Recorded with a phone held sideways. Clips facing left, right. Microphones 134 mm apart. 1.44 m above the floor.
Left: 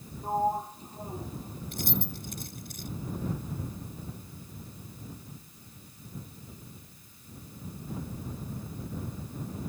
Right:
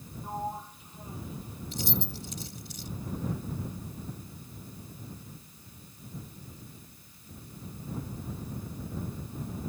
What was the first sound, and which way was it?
A sliding door, 35° left (ahead or behind).